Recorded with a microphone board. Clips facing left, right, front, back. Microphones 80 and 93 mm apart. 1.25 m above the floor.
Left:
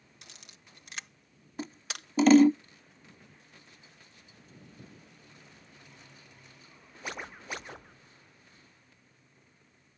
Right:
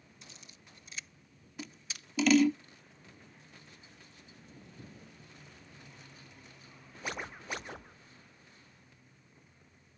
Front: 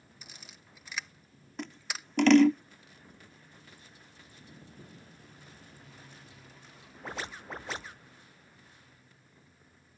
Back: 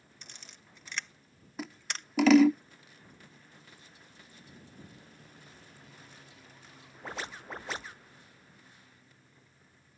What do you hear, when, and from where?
0.2 s a camera shutter: 85° left
1.6 s scissors: 100° left